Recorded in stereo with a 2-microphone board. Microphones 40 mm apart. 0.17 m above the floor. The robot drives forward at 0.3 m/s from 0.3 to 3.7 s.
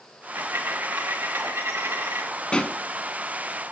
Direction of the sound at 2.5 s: 25° left (ahead or behind).